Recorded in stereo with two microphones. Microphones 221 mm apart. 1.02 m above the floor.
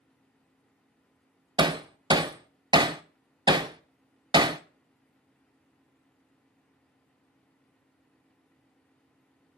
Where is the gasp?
No gasp in this recording.